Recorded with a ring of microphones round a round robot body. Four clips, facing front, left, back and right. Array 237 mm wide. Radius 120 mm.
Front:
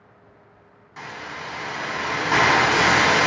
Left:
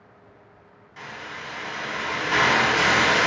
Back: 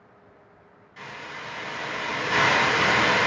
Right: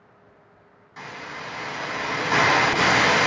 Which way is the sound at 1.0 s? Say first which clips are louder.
Right 1 dB, front 4 dB; 25° right.